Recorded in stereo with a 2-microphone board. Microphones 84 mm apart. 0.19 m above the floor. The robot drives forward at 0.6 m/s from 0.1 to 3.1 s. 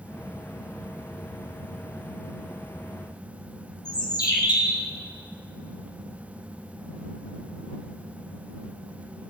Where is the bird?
50° left (ahead or behind), 2.5 m.